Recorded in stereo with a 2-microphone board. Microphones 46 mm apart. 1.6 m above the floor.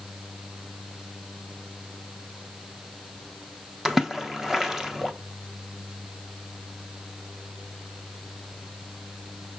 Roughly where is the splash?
Centre.